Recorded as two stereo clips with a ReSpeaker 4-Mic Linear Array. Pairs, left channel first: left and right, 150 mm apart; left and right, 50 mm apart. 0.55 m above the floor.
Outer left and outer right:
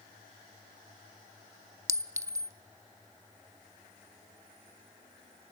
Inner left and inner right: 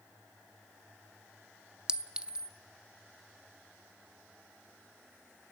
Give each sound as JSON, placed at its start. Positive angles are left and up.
{"t": 1.9, "sound": "a clink", "side_deg": -20, "distance_m": 0.6}